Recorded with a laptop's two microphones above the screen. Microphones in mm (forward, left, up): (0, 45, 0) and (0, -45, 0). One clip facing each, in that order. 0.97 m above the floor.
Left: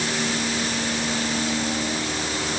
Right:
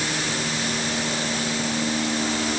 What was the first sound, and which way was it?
Only background noise.